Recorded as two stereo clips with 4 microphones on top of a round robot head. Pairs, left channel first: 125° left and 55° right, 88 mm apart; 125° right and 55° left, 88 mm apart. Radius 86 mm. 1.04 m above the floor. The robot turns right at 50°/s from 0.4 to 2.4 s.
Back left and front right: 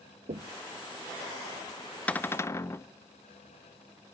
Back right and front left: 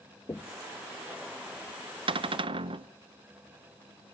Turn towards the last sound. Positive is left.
turn(degrees=65)